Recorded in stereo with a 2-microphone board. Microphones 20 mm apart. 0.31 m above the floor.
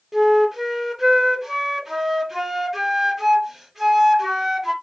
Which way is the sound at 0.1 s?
5° right (ahead or behind).